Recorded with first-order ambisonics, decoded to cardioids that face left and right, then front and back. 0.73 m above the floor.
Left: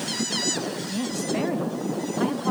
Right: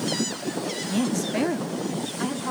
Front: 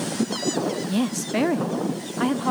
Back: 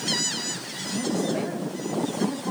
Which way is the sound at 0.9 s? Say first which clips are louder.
Right 3 dB, front 1 dB; 25° right.